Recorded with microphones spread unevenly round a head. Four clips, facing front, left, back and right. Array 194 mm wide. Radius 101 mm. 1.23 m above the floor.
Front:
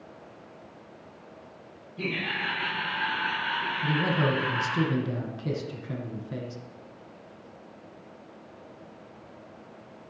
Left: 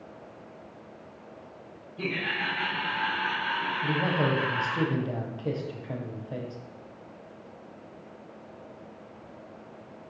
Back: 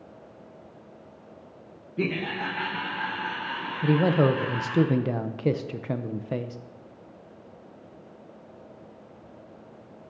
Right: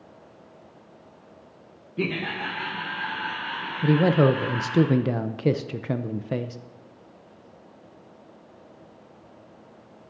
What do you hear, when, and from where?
2.0 s laughter: 125° right, 0.9 m; by 4.8 s 150° left, 4 m
3.8 s a man speaking: 100° right, 0.5 m